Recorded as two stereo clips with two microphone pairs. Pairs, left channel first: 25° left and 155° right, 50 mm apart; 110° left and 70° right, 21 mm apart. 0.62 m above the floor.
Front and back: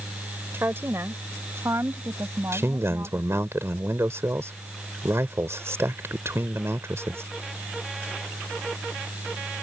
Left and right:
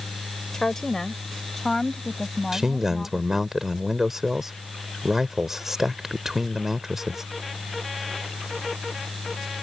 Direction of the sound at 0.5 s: 170° left.